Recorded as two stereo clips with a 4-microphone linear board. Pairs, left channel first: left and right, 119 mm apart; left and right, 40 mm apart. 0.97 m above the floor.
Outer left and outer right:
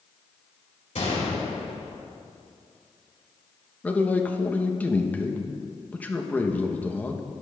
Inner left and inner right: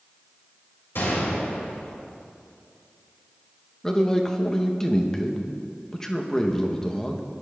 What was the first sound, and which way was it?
A gunshot, 80° left.